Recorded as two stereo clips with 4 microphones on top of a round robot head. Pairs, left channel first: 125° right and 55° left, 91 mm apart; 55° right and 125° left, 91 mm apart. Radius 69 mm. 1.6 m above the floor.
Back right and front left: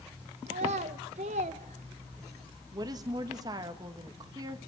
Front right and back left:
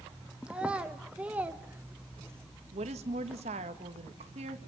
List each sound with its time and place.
0.5 s a child speaking: 45° left, 1.6 m; by 2.5 s 65° left, 0.6 m
2.7 s a woman speaking: 105° left, 1.9 m